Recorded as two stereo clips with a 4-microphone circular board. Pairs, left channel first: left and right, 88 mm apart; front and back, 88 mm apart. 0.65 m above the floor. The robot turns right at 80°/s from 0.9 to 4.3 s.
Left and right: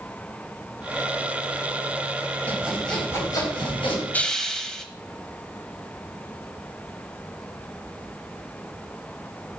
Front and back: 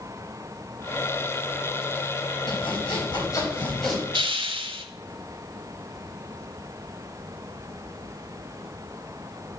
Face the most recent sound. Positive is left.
turn(degrees=175)